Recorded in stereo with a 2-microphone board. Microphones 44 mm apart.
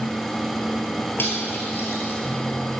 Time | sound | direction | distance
1.2 | cutlery clinking | 55° left (ahead or behind) | 1.8 m